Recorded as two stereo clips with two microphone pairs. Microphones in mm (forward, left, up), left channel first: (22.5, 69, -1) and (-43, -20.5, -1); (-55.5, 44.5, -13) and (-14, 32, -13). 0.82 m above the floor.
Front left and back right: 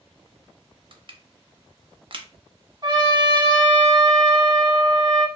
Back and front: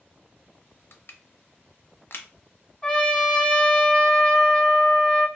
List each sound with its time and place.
0.9 s crushing: 165° right, 0.5 m
2.8 s a trumpet: 135° right, 0.9 m